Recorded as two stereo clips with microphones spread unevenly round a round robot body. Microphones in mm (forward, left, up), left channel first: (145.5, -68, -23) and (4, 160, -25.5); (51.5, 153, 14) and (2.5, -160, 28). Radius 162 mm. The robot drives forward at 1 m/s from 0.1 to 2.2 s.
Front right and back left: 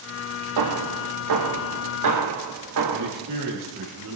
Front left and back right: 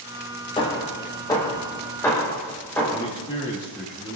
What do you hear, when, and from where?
0.6 s hammering: 155° left, 3 m; by 3.1 s 165° left, 5 m
2.9 s a man speaking: 160° left, 6.5 m